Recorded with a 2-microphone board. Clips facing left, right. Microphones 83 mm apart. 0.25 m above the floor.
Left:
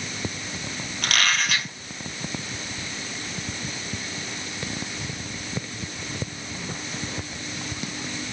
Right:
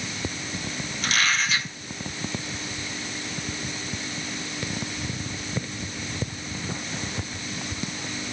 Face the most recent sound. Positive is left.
turn(degrees=65)  # may be behind; listen again after turning